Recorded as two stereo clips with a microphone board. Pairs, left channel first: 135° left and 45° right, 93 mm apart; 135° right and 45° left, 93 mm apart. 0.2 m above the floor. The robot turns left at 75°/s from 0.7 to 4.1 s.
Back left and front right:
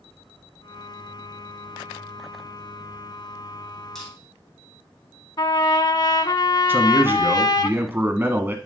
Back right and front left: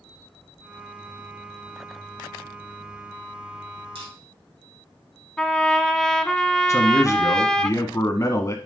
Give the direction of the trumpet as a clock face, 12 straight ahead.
7 o'clock.